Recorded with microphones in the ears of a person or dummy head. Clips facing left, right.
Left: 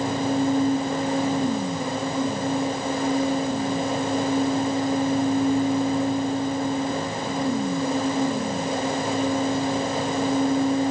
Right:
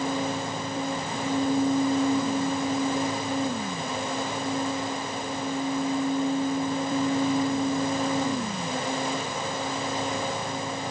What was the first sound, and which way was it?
Only background noise.